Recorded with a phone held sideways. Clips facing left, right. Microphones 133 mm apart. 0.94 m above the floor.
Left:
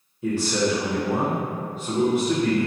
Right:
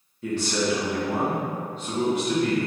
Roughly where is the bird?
No bird in this recording.